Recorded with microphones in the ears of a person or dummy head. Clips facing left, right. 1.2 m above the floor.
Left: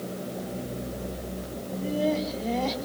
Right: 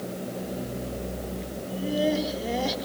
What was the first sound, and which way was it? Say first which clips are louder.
Laughter: right 1 dB; 15° right (ahead or behind).